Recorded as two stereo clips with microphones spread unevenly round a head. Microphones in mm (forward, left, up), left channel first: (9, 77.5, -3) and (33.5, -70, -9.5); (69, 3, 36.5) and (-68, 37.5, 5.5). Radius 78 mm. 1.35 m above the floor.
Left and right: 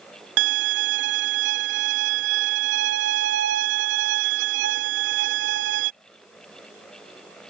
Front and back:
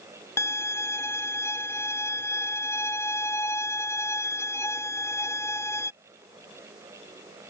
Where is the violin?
85° right.